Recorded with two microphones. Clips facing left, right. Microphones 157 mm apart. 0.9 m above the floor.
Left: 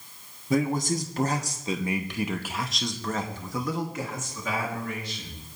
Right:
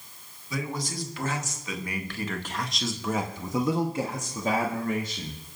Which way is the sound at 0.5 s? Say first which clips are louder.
Left 8 dB; 50° left (ahead or behind).